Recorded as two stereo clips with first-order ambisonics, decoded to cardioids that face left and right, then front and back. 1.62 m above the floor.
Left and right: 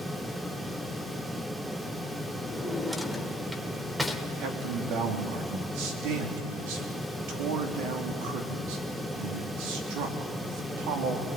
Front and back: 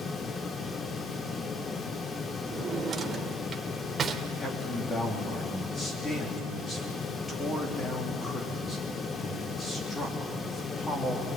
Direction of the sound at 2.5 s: 170° right.